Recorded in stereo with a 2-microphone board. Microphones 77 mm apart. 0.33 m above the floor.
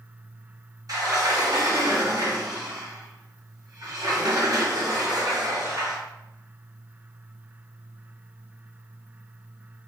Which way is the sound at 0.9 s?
55° right (ahead or behind).